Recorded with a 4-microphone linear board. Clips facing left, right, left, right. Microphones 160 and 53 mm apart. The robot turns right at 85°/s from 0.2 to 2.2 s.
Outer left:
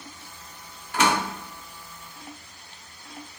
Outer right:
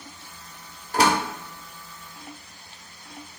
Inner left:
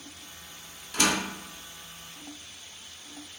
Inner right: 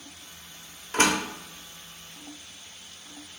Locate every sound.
0.9 s a door slam: 40° right (ahead or behind), 0.8 m; by 1.2 s 30° right (ahead or behind), 0.8 m